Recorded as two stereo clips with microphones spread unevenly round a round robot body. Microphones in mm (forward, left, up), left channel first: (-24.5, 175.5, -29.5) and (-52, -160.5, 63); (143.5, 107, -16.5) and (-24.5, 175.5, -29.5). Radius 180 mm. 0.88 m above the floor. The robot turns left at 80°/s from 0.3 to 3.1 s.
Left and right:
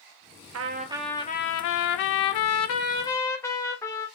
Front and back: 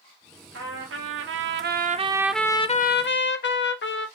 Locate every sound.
0.5 s a trumpet: 150° right, 0.8 m; by 4.1 s 5° left, 0.8 m